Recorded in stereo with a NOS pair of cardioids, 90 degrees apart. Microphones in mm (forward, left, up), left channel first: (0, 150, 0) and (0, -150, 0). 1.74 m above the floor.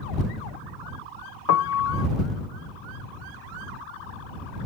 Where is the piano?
55° left.